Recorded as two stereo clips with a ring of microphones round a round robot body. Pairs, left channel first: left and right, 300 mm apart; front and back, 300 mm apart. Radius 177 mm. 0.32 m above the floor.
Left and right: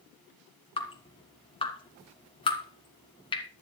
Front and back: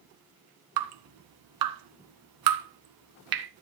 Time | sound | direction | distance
0.8 | dripping | 165° left | 1.8 m